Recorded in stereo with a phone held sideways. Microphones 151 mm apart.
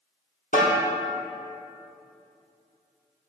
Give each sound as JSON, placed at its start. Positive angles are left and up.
{"t": 0.5, "sound": "a snare drum", "side_deg": 60, "distance_m": 1.6}